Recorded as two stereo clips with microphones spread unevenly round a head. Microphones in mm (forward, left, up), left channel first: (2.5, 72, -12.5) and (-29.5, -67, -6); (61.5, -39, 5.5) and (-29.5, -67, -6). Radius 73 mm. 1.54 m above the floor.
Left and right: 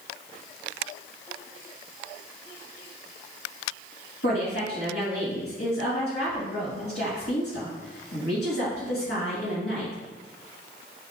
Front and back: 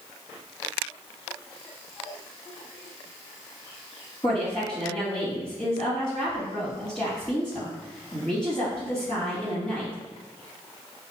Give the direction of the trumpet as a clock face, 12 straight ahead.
I don't hear a trumpet.